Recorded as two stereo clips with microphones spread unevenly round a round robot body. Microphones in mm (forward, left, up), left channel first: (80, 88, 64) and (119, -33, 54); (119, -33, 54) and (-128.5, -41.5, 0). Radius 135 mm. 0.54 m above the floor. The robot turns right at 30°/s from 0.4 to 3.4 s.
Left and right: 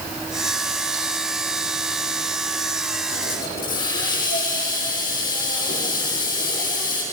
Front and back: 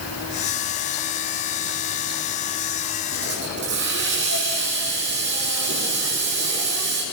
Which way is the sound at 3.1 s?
125° left.